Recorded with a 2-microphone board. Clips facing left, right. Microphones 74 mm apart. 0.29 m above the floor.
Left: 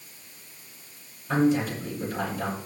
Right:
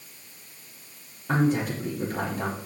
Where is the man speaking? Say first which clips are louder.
Left 1 dB; 65° right (ahead or behind), 5.5 m.